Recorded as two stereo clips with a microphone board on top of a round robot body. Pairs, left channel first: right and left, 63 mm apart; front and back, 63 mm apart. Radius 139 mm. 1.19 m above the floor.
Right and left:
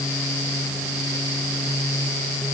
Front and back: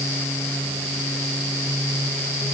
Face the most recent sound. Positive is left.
No sound to turn to.